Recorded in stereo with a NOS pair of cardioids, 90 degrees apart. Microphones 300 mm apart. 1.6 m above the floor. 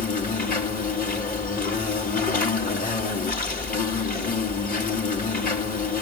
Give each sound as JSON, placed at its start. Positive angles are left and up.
{"t": 0.0, "sound": "an insect", "azimuth_deg": 25, "distance_m": 4.0}